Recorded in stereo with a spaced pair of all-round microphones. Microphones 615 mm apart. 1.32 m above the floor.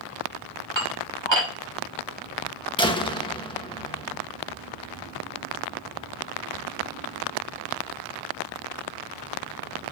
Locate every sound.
0.8 s dishes clattering: 45° right (ahead or behind), 3 m
2.8 s a door slam: 10° left (ahead or behind), 1.3 m